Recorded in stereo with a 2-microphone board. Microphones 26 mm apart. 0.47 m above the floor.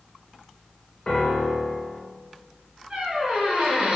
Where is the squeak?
35° right (ahead or behind), 1.3 m.